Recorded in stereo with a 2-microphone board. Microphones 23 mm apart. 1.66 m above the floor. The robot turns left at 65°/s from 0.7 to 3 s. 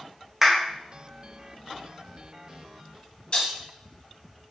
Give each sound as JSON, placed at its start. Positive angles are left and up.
{"t": 0.4, "sound": "a clap", "side_deg": -15, "distance_m": 2.0}
{"t": 3.3, "sound": "breaking glass", "side_deg": 45, "distance_m": 4.5}